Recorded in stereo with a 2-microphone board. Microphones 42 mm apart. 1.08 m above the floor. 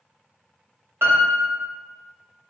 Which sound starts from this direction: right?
A piano, at 1.0 s.